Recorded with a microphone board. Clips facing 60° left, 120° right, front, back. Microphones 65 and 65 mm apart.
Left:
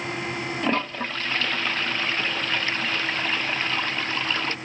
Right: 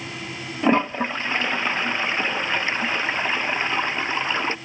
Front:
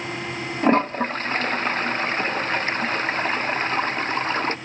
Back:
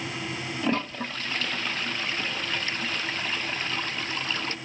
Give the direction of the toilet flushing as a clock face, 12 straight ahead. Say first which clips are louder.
Right 8 dB, front 10 dB; 2 o'clock.